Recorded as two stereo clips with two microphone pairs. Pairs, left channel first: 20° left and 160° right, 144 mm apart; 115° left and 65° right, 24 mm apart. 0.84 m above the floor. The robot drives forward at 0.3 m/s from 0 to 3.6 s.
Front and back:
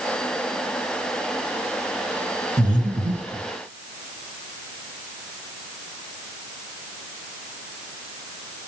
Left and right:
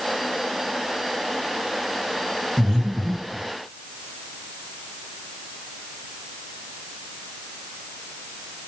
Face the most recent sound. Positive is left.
turn(degrees=-130)